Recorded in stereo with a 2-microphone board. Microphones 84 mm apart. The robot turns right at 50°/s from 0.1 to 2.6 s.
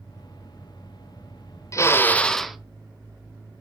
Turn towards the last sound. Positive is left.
turn(degrees=-175)